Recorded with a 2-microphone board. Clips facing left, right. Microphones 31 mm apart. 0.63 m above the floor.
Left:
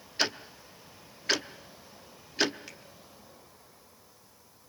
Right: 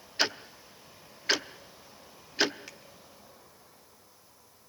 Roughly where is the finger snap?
Centre.